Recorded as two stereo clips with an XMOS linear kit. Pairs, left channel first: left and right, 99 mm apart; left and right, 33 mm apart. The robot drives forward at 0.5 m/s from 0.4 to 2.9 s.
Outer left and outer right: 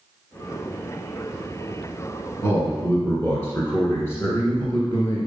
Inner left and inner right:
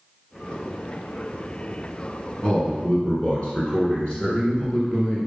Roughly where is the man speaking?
Left.